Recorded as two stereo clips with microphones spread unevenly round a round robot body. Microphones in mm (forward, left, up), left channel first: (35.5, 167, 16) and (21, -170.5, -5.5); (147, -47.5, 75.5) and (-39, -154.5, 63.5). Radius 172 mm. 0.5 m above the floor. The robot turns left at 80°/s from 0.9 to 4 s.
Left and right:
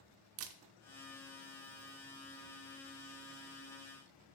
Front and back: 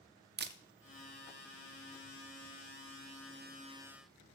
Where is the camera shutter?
125° right, 0.6 m.